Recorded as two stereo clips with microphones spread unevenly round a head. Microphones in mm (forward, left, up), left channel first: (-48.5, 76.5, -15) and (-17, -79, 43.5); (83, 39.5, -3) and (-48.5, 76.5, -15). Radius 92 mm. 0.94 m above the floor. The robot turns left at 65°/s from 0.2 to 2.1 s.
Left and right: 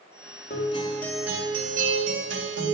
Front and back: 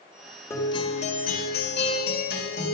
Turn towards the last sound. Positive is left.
turn(degrees=-50)